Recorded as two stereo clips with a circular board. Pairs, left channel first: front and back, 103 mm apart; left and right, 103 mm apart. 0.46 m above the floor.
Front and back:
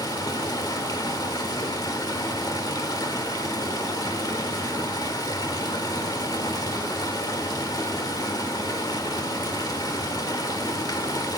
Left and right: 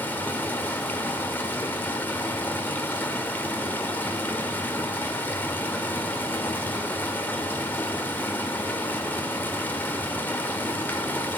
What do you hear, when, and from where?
0.0 s running water: 25° left, 1.4 m